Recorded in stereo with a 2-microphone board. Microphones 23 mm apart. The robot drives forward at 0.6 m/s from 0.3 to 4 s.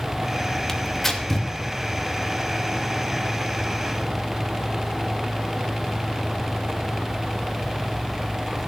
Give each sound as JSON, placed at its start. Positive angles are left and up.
{"t": 0.7, "sound": "tearing paper", "side_deg": 15, "distance_m": 2.0}